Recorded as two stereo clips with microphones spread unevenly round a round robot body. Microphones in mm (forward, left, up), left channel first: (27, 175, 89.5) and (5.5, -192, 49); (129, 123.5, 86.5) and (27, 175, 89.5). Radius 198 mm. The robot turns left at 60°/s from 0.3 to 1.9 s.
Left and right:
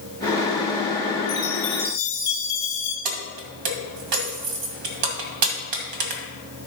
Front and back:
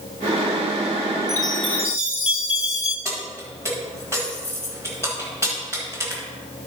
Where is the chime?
40° left, 2.5 m; by 3.0 s 5° left, 2.5 m.